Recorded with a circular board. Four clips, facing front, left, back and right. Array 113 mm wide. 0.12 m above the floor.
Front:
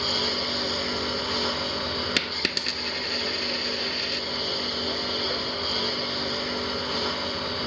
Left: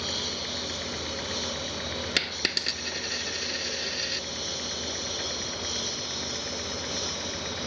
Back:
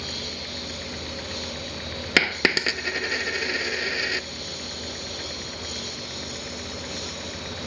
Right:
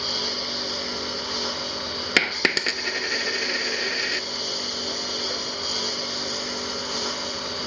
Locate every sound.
0.0 s a lawn mower: 30° right; by 7.7 s 35° right
2.2 s a dropped coin: 140° right